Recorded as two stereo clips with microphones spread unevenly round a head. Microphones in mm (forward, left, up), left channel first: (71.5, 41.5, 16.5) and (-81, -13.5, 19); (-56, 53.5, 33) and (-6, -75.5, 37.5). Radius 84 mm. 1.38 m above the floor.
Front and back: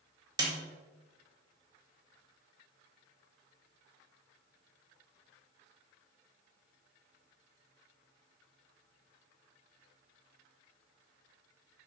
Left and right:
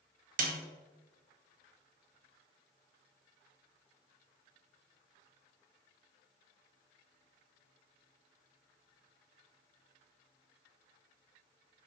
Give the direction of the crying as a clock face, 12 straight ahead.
I don't hear crying.